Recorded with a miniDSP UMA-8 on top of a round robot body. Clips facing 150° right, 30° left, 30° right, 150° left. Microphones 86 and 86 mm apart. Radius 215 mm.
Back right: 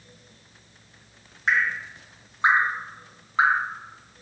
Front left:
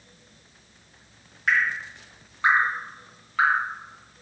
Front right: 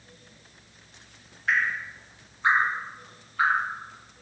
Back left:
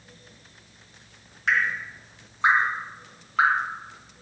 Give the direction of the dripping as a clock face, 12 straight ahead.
7 o'clock.